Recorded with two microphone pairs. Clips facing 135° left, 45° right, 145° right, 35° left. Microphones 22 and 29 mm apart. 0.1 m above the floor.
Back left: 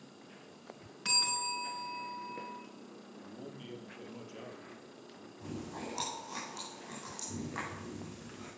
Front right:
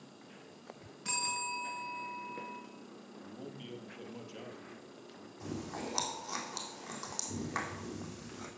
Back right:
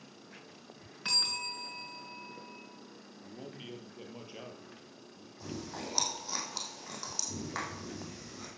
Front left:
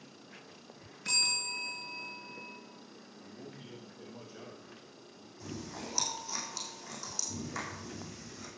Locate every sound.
1.1 s a bell: 175° left, 6 m
3.2 s a man speaking: 125° right, 3 m
5.4 s chewing: 85° right, 3.5 m